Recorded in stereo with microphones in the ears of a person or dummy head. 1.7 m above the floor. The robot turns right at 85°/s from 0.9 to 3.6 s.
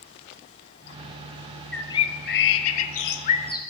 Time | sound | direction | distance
1.7 | a bird | 5° left | 1.4 m